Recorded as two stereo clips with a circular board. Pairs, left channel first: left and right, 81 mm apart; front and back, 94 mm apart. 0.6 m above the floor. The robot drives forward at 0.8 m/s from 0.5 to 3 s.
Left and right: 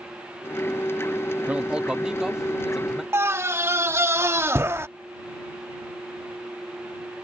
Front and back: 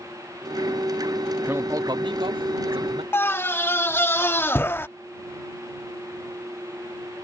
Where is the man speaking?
140° right; by 3.0 s 175° right.